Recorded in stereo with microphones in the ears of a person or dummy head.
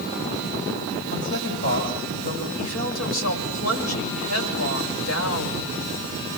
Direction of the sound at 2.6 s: 80° left.